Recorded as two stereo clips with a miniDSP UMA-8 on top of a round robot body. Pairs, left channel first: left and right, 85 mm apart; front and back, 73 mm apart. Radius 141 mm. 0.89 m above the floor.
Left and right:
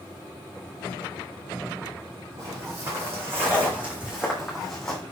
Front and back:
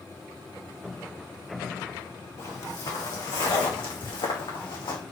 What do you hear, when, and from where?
2.4 s footsteps: 40° right, 4 m; by 5.0 s 10° left, 3 m